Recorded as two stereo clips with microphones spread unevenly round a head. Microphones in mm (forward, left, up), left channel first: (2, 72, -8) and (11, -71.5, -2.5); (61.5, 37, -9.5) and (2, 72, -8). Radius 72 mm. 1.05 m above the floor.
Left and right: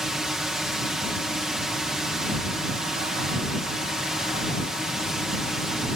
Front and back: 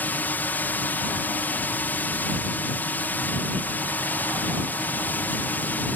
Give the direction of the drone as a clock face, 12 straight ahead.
12 o'clock.